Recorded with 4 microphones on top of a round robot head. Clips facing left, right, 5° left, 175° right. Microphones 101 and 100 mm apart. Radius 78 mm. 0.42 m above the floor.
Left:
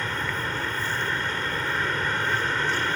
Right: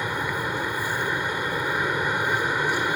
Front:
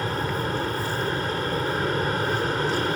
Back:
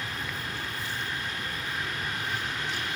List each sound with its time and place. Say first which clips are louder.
0.0 s an aircraft: right 2 dB, front 9 dB; 20° right